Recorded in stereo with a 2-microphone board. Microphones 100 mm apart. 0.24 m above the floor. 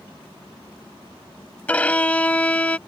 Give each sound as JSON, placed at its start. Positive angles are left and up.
{"t": 1.7, "sound": "a violin", "side_deg": 15}